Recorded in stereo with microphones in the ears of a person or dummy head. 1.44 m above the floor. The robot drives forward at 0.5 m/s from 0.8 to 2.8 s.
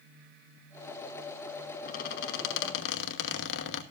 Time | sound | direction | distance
1.9 | a squeak | 50° left (ahead or behind) | 1.4 m